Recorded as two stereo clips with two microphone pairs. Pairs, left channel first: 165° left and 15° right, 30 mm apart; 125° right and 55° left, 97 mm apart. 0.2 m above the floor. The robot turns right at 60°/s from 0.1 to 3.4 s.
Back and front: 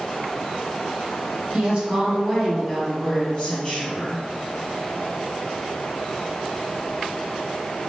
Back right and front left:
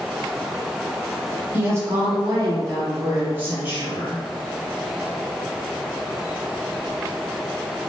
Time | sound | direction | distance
1.5 | a woman speaking | 5° right | 1.3 m